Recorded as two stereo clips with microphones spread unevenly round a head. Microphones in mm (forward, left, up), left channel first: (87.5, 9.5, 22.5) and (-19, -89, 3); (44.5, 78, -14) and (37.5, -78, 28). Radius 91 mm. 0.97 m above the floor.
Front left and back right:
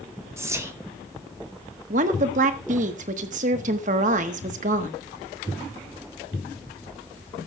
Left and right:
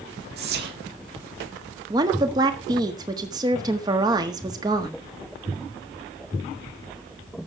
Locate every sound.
0.4 s whispering: 70° right, 1.0 m
1.9 s a woman speaking: 170° right, 1.2 m